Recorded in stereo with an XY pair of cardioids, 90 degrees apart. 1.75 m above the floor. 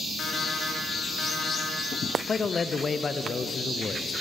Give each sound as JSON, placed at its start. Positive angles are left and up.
{"t": 0.2, "sound": "an alarm clock", "azimuth_deg": 60, "distance_m": 2.5}
{"t": 2.3, "sound": "a man speaking", "azimuth_deg": 45, "distance_m": 0.7}